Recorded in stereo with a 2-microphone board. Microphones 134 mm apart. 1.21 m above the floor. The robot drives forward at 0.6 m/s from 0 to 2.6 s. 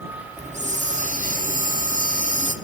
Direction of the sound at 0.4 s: 60° right (ahead or behind).